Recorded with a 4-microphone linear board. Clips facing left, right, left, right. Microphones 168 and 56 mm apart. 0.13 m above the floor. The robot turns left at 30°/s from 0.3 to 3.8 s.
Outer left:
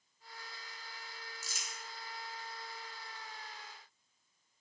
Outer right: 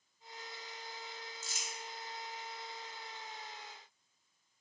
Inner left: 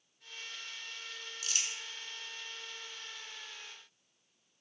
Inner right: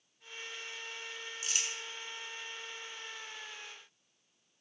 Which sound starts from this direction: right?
Crumpling, at 1.4 s.